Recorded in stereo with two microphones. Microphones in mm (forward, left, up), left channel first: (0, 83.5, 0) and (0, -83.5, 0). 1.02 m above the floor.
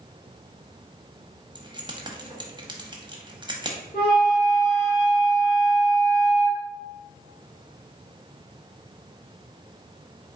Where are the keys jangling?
25° right (ahead or behind), 0.8 m.